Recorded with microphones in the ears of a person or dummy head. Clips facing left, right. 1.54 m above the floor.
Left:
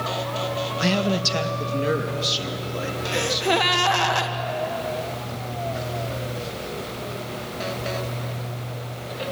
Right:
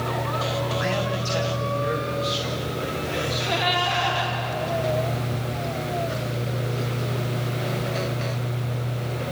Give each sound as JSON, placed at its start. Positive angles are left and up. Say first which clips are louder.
{"t": 0.8, "sound": "a man speaking", "louder": "left 3 dB", "side_deg": 50, "distance_m": 1.4}
{"t": 3.1, "sound": "a gasp", "louder": "left 8 dB", "side_deg": 70, "distance_m": 1.6}